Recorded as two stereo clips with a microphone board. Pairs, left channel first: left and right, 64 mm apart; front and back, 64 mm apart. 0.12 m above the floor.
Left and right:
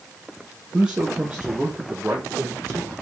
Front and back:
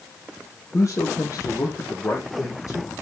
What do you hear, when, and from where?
0.7 s a man speaking: 15° right, 3 m; by 2.9 s 35° right, 4.5 m